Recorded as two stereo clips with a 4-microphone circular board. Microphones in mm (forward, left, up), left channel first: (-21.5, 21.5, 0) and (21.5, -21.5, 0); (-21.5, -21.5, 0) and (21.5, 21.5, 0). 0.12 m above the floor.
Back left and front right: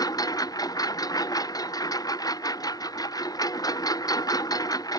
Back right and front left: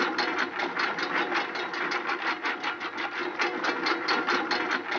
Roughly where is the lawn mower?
Behind left.